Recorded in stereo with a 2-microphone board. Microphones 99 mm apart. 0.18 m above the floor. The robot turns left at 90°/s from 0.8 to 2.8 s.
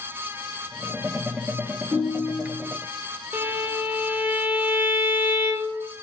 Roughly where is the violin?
Centre.